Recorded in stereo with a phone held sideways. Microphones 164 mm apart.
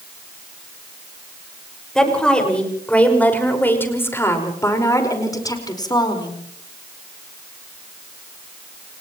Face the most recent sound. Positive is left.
turn(degrees=25)  # may be behind; listen again after turning